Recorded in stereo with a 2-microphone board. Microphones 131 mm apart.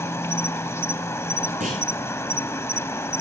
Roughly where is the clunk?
Right.